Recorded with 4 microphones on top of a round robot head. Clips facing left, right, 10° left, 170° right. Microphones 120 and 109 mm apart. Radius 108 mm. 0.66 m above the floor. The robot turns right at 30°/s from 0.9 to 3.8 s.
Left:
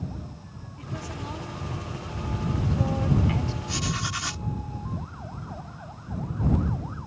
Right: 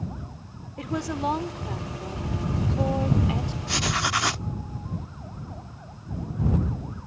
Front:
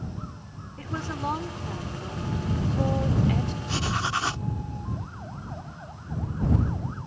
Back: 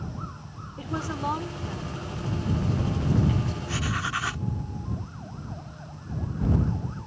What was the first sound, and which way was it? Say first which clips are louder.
A woman speaking: right 9 dB, back 2 dB; 95° right.